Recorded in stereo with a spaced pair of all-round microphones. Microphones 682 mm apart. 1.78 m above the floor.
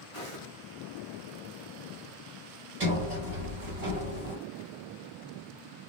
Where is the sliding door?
60° right (ahead or behind), 3 m.